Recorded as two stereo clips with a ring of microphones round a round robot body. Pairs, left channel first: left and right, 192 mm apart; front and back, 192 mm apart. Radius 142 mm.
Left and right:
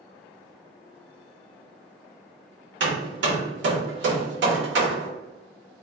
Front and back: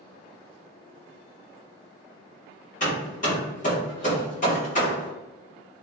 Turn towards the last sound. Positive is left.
turn(degrees=-65)